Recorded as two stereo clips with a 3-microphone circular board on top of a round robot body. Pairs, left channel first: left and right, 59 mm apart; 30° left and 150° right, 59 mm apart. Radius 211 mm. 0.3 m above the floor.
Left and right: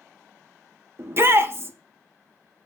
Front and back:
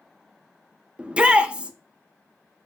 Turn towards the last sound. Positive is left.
turn(degrees=-85)